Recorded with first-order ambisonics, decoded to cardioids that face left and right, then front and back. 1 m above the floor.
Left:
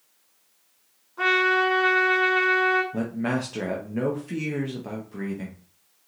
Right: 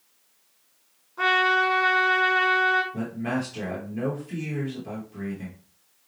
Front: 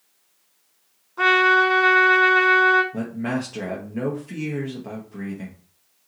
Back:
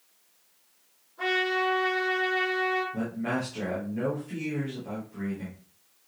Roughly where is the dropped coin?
No dropped coin in this recording.